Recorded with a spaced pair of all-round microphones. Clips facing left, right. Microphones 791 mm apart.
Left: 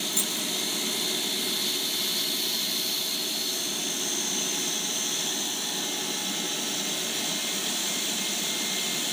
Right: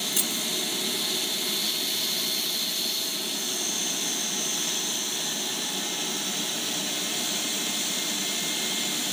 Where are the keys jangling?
85° right.